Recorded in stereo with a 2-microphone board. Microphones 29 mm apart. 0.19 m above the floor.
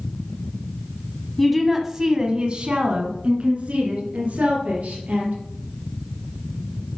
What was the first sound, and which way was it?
A woman speaking, 10° left (ahead or behind).